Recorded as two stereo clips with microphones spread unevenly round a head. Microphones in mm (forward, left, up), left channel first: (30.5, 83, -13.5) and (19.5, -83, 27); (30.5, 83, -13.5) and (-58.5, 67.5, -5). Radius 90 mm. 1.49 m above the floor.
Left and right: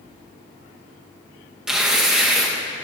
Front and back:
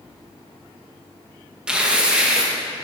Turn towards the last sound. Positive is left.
turn(degrees=-125)